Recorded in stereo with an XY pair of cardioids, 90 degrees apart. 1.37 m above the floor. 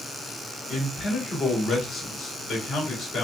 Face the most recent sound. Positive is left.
turn(degrees=60)